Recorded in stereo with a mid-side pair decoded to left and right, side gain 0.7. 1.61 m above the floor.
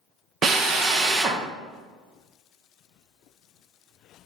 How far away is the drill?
About 0.9 m.